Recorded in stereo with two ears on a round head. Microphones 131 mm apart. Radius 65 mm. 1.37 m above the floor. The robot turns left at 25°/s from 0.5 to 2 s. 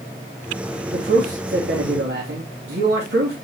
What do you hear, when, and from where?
0.9 s a man speaking: 50° right (ahead or behind), 3 m; by 3.3 s 80° right, 3 m